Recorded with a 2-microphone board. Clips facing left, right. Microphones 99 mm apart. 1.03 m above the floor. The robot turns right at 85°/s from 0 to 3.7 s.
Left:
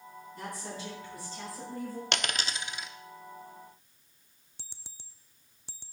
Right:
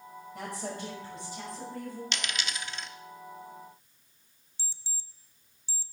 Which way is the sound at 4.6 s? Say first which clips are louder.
Right 5 dB; 60° left (ahead or behind).